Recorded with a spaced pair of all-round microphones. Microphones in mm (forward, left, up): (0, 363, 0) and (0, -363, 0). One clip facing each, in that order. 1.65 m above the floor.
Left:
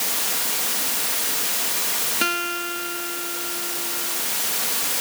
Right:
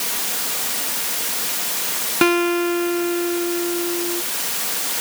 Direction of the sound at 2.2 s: 75° right (ahead or behind).